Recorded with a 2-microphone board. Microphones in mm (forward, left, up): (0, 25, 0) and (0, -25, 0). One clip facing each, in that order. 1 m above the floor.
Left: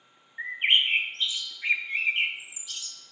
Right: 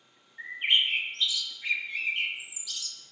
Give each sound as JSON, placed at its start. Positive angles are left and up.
{"t": 0.4, "sound": "a bird", "side_deg": 35, "distance_m": 0.6}